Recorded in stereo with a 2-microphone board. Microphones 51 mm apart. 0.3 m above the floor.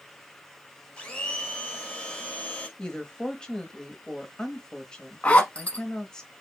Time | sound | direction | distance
1.0 | a blender | 20° left (ahead or behind) | 1.3 m
2.8 | a woman speaking | 15° left (ahead or behind) | 1.1 m
5.2 | a zipper | 25° left (ahead or behind) | 0.8 m